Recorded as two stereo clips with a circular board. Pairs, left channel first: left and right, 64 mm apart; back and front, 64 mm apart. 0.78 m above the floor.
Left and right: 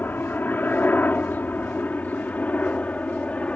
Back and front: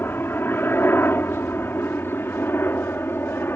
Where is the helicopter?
135° left; by 3.5 s 150° left.